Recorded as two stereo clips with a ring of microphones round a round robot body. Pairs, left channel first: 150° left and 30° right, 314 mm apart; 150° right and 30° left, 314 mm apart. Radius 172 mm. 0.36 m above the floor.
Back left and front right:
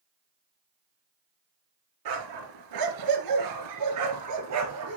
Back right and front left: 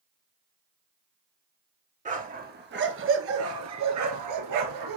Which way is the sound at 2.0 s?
35° right.